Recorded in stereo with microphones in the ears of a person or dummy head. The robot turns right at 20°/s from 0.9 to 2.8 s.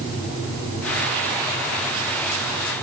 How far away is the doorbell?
I don't hear a doorbell.